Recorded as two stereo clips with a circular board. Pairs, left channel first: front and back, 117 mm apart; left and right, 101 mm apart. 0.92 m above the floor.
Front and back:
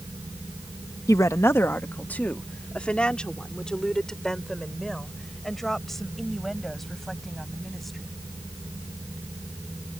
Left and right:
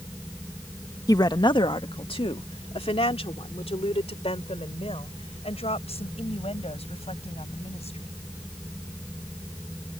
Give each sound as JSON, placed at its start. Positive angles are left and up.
{"t": 1.1, "sound": "a woman speaking", "azimuth_deg": 50}